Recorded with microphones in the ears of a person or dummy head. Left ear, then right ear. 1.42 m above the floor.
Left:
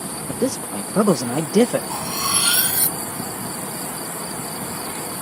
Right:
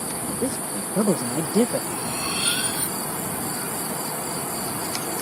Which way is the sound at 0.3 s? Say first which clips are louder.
Left 6 dB; 55° left (ahead or behind).